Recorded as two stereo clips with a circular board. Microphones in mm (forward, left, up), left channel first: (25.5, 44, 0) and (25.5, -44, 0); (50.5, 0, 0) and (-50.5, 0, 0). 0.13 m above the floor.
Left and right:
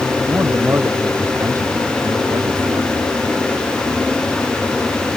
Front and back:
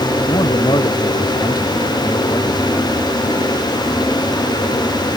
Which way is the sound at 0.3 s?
30° right.